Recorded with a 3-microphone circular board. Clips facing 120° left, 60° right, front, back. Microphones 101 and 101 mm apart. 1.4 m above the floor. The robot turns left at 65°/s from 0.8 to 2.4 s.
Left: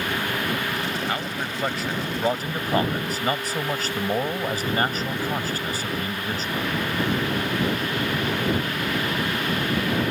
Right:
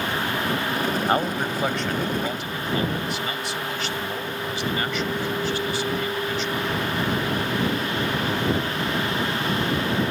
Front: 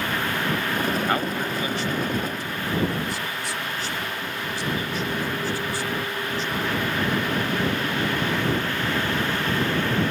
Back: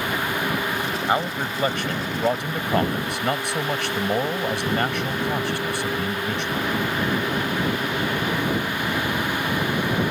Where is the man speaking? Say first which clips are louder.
Right 6 dB, back 1 dB; 105° right; by 6.7 s 165° left.